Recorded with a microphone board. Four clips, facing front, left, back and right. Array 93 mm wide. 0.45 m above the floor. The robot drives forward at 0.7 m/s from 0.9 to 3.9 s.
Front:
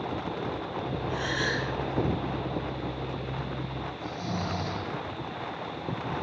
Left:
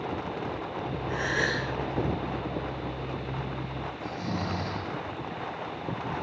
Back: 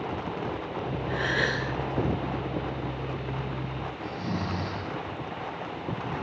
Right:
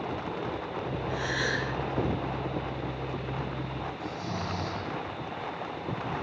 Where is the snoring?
150° left, 6.5 m.